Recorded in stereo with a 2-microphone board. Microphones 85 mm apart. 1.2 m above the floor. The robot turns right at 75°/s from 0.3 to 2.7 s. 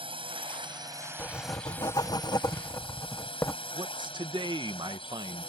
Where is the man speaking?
60° right (ahead or behind).